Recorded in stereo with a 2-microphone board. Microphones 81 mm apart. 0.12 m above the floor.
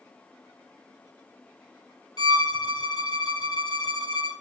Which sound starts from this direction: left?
A violin, at 2.2 s.